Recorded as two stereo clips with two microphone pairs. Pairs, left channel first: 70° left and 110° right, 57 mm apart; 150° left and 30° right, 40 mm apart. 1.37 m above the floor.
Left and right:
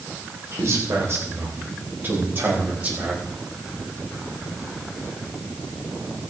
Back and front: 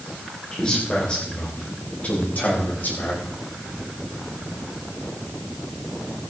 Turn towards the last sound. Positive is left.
turn(degrees=-170)